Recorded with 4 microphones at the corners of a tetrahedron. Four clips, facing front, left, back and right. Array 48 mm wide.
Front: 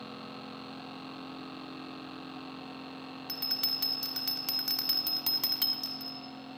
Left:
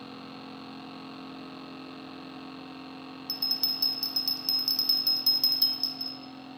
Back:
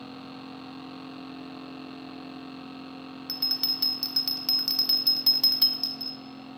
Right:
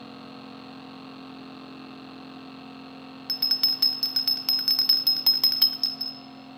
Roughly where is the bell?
Right.